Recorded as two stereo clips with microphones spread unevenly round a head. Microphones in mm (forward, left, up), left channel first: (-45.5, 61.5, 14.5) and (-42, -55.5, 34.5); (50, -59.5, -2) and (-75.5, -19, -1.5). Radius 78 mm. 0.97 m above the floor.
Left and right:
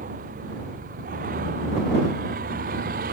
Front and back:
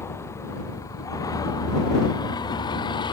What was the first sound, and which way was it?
A vehicle, 85° right.